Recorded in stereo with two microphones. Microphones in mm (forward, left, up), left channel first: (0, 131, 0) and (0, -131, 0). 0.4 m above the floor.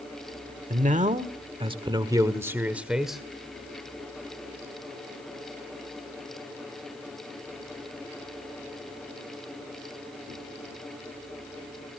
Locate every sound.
0.7 s a man speaking: 30° right (ahead or behind), 1.4 m; by 3.2 s centre (ahead or behind), 1.5 m